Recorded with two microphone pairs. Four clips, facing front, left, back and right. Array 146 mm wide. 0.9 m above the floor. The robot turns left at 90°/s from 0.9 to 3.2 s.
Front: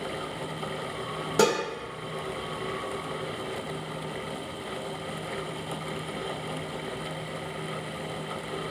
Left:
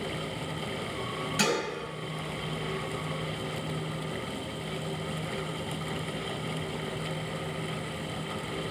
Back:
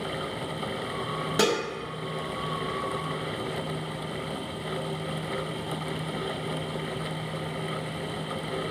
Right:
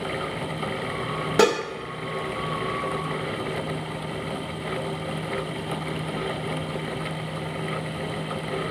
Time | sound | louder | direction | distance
1.4 | dishes clattering | right 10 dB, front 2 dB | 75° right | 1.2 m